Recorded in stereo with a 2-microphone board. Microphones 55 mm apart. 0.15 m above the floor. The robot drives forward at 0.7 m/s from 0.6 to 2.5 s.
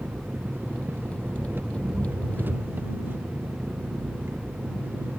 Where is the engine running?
40° right (ahead or behind); by 5.2 s 35° right (ahead or behind).